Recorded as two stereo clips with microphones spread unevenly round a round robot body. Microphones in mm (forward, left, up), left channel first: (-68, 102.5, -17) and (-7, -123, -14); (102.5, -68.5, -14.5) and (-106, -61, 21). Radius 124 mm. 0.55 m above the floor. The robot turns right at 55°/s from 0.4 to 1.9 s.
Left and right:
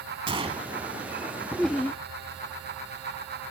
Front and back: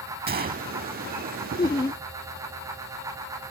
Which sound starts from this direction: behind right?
A gunshot, at 0.3 s.